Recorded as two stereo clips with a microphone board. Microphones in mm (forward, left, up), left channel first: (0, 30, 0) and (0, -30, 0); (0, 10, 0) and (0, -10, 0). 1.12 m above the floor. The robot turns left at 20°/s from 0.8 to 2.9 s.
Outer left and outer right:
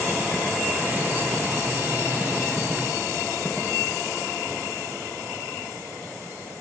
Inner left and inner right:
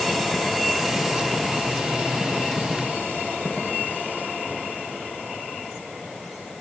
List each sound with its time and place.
Only background noise.